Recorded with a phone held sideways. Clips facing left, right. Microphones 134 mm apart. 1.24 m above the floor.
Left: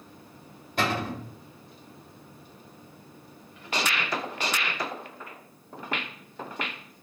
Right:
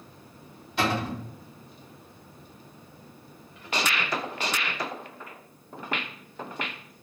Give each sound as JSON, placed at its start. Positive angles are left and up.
{"t": 0.8, "sound": "a cupboard door", "side_deg": 50, "distance_m": 1.3}